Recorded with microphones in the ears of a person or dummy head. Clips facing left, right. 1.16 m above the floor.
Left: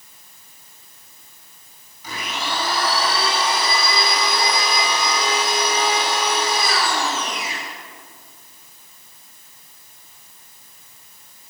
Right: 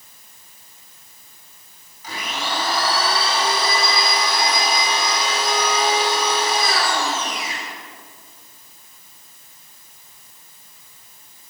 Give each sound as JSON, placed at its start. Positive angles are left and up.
{"t": 2.0, "sound": "a blender", "side_deg": 90, "distance_m": 7.5}